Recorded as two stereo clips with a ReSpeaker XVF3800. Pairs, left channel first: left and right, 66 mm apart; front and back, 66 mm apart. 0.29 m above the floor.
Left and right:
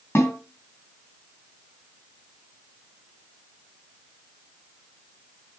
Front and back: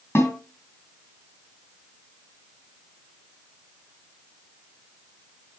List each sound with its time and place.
0.1 s a snare drum: 45° left, 3.5 m